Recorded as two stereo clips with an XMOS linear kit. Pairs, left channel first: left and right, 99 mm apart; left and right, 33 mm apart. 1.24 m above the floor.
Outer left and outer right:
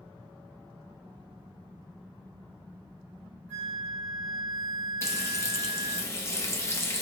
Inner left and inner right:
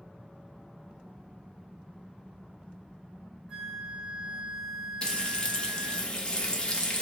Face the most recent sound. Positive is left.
turn(degrees=30)  # may be behind; listen again after turning